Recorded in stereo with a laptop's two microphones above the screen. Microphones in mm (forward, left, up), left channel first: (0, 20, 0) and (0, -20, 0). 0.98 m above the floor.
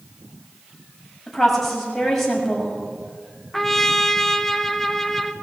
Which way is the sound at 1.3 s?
5° left (ahead or behind).